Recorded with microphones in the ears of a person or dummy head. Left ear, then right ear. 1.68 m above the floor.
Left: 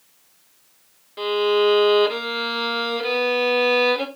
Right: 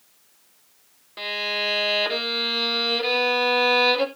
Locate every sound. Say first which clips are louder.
1.2 s a violin: left 7 dB; 20° right (ahead or behind), 2.5 m